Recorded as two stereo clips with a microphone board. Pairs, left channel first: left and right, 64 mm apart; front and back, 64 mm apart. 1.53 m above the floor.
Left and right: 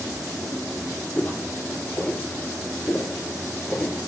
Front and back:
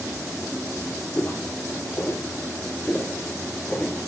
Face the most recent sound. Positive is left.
turn(degrees=30)